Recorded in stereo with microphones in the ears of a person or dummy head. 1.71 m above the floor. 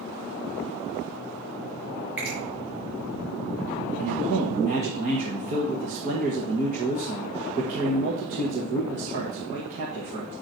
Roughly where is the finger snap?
Centre.